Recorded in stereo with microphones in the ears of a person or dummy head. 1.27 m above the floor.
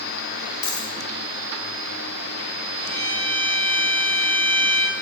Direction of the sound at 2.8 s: 10° left (ahead or behind).